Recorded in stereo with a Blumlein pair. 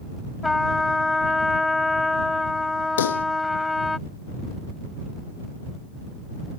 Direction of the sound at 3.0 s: 60° left.